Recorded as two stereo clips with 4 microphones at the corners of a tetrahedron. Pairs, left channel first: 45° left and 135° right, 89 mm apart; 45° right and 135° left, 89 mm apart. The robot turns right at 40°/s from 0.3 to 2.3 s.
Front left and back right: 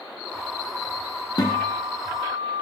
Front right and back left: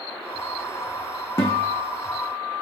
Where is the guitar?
10° left, 1.1 m; by 2.6 s 50° left, 1.1 m.